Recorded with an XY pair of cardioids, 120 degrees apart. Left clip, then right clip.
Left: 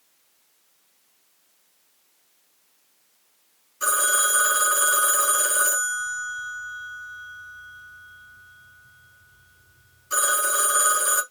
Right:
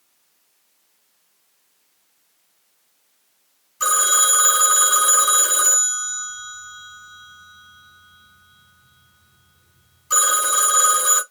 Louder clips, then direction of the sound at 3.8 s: Right 4 dB; 65° right.